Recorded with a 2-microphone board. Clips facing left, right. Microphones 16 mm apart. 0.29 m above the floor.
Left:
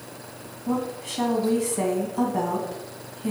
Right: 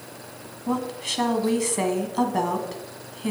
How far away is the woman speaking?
About 1.9 m.